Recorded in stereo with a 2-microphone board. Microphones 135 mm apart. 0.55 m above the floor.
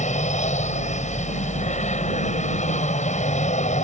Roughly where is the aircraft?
Left.